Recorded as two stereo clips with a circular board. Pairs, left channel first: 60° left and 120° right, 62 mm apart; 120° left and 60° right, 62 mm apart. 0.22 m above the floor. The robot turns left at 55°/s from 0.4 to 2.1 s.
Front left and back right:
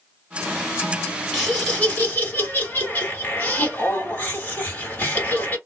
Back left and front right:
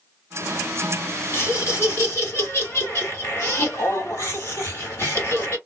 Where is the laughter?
150° left, 2 m; by 5.6 s 105° left, 2 m.